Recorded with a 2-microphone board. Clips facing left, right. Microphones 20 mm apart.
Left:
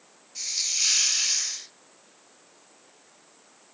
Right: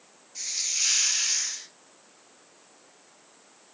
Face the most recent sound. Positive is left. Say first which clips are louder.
# left 2 dB
turn(degrees=0)  # may be behind; listen again after turning